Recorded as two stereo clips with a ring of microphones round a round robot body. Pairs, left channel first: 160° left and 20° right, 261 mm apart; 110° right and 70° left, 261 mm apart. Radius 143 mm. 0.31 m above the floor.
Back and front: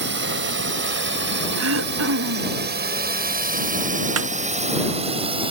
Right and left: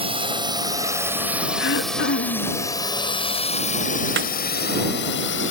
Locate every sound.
0.0 s a drone: 5° left; by 5.5 s 90° right
1.6 s throat clearing: 65° right
4.2 s a snare drum: 15° left